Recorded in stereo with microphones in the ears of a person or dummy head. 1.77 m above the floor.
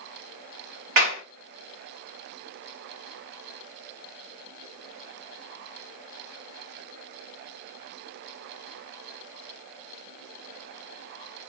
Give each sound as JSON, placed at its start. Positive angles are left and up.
{"t": 1.0, "sound": "a clap", "side_deg": -50, "distance_m": 1.0}